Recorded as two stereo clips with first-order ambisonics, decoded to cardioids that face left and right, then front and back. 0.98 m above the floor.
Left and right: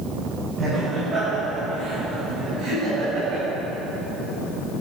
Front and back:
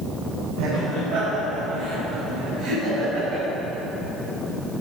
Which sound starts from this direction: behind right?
Laughter, at 0.6 s.